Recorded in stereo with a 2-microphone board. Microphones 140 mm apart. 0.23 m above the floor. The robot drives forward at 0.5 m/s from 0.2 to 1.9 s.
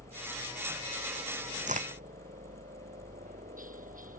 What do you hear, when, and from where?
0.0 s a helicopter: 70° right (ahead or behind); by 4.2 s 75° right (ahead or behind)
1.7 s a crack: 60° right (ahead or behind); by 2.0 s 65° right (ahead or behind)